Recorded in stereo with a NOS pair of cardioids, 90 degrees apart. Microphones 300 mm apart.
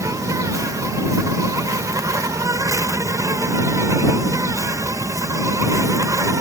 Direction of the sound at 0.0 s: 10° right.